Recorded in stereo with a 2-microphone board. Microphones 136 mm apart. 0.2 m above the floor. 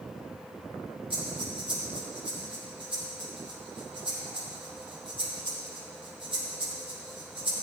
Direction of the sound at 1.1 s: 45° right (ahead or behind).